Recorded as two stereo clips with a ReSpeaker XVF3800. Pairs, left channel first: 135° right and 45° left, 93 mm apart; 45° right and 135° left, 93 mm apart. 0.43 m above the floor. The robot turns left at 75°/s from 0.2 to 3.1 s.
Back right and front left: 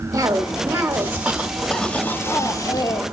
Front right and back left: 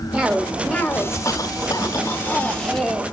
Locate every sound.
0.1 s a cough: 55° left, 1.4 m; by 3.0 s 155° right, 1.4 m